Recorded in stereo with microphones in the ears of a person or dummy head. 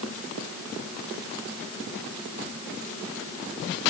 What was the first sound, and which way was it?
Only background noise.